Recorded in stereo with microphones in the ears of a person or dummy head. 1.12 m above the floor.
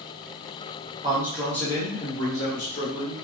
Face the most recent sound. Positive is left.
turn(degrees=55)  # may be behind; listen again after turning